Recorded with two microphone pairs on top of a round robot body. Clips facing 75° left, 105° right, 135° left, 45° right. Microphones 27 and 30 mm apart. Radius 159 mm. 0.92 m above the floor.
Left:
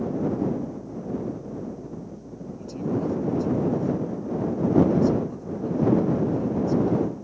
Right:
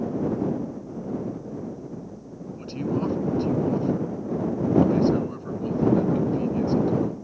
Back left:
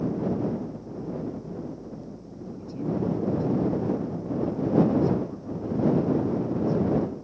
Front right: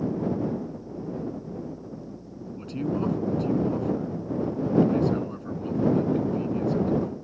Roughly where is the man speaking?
Ahead right.